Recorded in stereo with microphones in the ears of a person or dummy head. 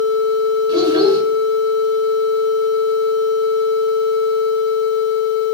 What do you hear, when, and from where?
0.7 s a child speaking: 20° right (ahead or behind), 5 m